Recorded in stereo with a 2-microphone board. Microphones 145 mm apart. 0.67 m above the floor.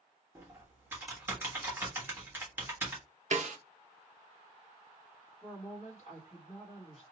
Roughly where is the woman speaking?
Left.